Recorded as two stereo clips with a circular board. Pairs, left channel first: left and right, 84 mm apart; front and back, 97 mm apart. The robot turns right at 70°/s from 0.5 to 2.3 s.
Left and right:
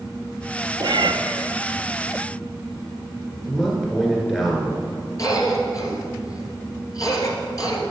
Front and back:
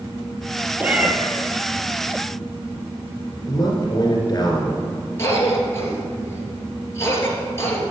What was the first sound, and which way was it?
A cat meowing, 110° right.